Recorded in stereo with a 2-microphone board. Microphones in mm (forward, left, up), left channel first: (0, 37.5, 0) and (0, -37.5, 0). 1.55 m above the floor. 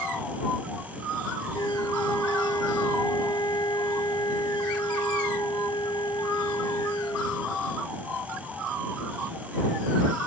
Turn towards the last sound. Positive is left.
turn(degrees=60)  # may be behind; listen again after turning